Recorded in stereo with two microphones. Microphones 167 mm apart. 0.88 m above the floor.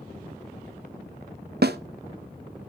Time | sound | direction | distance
1.6 | a snare drum | 75° right (ahead or behind) | 0.7 m